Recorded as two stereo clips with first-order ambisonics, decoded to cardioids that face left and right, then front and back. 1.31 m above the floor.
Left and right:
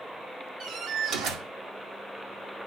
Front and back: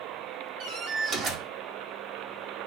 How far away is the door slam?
About 2 m.